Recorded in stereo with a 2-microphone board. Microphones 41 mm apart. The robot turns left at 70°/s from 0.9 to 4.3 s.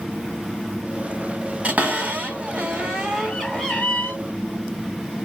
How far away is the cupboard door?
About 1.9 m.